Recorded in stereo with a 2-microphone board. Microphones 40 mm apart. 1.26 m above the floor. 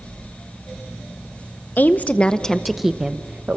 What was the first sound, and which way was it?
A woman speaking, 50° left (ahead or behind).